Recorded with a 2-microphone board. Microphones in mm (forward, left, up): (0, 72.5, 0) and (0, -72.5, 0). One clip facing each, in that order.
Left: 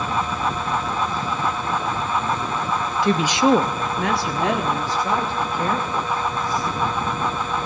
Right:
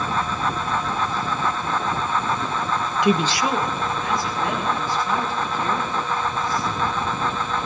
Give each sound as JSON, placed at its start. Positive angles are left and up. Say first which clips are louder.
{"t": 3.0, "sound": "a woman speaking", "louder": "left 3 dB", "side_deg": -20, "distance_m": 0.6}